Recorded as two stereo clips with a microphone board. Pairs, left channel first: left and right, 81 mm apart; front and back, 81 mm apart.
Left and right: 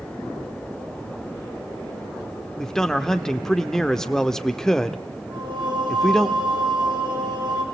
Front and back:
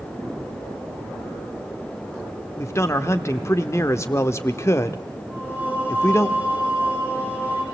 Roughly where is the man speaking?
Ahead.